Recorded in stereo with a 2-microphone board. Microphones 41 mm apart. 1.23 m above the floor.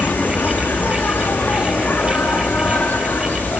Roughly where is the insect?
Left.